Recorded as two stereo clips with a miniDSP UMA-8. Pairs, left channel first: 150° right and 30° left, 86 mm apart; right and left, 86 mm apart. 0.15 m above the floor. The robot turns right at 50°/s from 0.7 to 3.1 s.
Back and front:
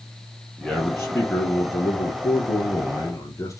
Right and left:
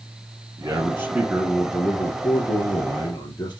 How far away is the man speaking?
About 2 m.